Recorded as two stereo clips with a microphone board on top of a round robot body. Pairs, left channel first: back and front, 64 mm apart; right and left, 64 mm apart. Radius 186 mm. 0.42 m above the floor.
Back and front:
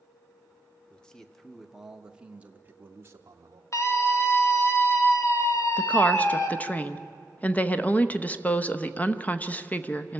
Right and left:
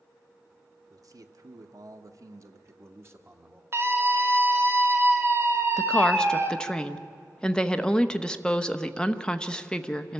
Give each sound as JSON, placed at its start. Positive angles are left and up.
{"t": 0.9, "sound": "a man speaking", "azimuth_deg": 105, "distance_m": 1.5}
{"t": 3.7, "sound": "a scream", "azimuth_deg": 140, "distance_m": 2.5}
{"t": 5.8, "sound": "a woman speaking", "azimuth_deg": -150, "distance_m": 1.1}